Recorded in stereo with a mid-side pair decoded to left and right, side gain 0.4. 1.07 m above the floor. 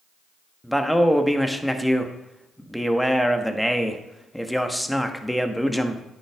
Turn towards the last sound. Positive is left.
turn(degrees=0)